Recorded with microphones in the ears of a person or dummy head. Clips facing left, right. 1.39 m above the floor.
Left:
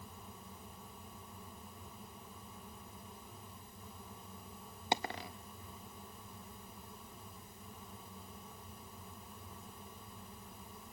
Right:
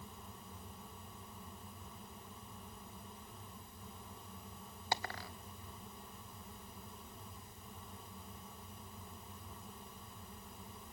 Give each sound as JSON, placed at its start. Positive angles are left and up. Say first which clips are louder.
{"t": 4.9, "sound": "a dropped coin", "louder": "left 4 dB", "side_deg": 20, "distance_m": 0.8}